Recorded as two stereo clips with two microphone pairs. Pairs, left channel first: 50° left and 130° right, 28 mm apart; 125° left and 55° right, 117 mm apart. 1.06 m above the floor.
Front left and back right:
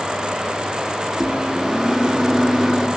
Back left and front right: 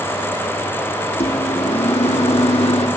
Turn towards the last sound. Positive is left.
turn(degrees=155)